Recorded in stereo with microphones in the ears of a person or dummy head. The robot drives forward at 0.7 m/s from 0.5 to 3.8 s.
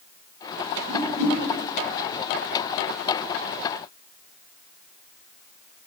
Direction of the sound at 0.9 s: 55° right (ahead or behind).